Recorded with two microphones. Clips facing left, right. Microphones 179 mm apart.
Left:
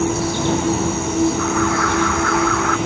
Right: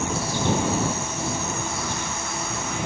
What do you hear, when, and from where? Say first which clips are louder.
0.0 s an insect: left 7 dB; 70° left (ahead or behind)
1.4 s an alarm: left 11 dB; 85° left